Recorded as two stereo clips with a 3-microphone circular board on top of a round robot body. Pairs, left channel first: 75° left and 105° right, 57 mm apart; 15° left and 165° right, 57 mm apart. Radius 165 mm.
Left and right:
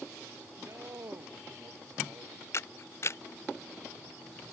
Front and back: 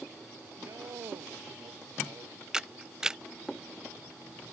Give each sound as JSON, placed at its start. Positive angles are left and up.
{"t": 0.6, "sound": "a man speaking", "azimuth_deg": -140}
{"t": 2.5, "sound": "a camera shutter", "azimuth_deg": 115}